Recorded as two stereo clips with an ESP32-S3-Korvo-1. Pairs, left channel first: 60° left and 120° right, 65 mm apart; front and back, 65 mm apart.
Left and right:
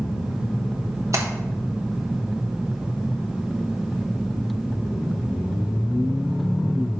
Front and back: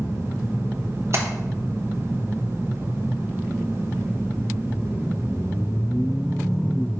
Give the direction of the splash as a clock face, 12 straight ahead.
5 o'clock.